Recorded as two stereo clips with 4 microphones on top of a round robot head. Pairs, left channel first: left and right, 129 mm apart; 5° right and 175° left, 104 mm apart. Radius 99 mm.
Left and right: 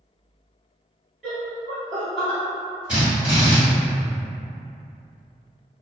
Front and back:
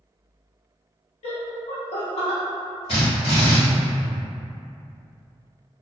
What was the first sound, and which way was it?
Laughter, straight ahead.